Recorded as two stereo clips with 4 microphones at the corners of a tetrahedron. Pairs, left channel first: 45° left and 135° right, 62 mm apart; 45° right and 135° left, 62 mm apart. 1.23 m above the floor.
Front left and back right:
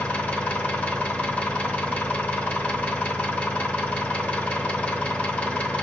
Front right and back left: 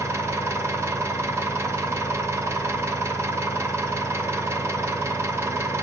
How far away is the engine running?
About 0.8 m.